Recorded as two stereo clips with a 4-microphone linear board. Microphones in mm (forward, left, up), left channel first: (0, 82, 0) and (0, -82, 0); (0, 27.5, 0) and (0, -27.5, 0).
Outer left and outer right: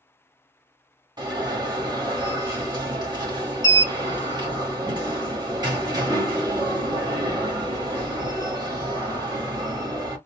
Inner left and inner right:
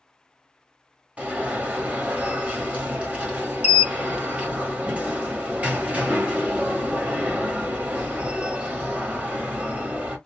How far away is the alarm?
About 1.2 m.